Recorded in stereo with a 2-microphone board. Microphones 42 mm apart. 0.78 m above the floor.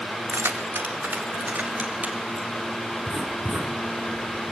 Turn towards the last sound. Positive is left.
turn(degrees=-40)  # may be behind; listen again after turning